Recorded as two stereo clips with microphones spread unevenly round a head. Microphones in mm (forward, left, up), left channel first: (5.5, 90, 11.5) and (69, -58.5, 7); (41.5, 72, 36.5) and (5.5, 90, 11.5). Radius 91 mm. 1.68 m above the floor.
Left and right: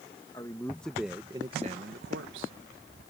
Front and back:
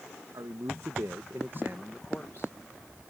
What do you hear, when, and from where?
0.3 s a man speaking: 175° right; by 2.5 s 90° right